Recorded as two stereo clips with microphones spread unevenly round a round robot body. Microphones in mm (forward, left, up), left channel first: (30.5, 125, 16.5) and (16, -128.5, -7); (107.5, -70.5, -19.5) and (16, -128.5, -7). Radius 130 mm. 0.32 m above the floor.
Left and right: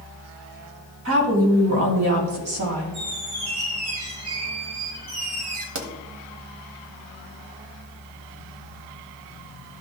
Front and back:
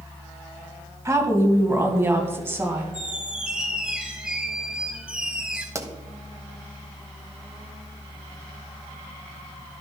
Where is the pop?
85° right, 1.3 m.